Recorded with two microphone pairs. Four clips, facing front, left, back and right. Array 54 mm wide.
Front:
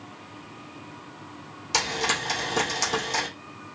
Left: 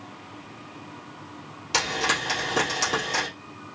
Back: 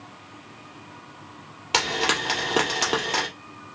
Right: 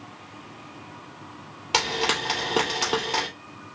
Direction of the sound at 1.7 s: 155° right.